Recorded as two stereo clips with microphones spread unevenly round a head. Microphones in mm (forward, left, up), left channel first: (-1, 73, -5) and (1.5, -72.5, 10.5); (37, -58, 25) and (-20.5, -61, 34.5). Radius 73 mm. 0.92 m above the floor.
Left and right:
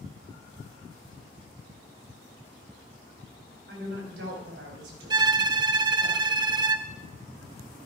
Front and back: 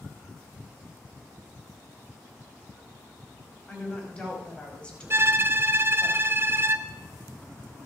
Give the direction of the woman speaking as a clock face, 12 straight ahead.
2 o'clock.